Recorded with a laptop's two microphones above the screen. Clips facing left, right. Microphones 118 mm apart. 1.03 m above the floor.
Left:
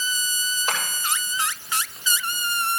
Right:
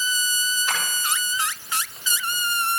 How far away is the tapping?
About 7.5 m.